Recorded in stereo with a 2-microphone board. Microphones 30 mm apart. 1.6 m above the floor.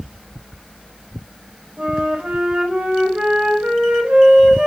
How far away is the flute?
About 6.5 m.